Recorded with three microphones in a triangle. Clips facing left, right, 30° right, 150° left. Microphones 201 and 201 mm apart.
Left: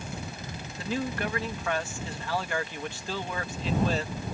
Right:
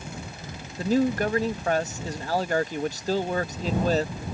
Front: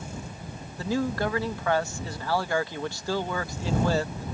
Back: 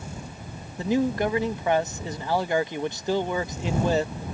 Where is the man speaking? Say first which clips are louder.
Right 9 dB, back 4 dB; 140° right.